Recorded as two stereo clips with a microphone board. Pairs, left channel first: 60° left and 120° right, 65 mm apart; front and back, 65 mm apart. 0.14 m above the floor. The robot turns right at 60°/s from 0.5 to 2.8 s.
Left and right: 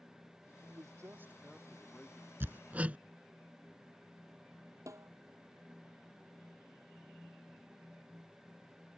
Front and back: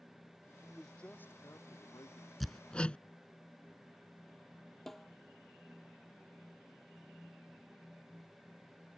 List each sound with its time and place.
0.6 s a man speaking: 95° right; by 2.3 s 5° left
2.4 s hammering: 90° right; by 3.0 s 65° right
4.9 s a snare drum: 85° right